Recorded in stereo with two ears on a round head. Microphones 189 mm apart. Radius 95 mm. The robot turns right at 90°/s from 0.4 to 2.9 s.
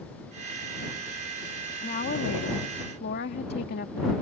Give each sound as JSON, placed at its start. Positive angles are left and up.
{"t": 1.8, "sound": "a woman speaking", "azimuth_deg": 25}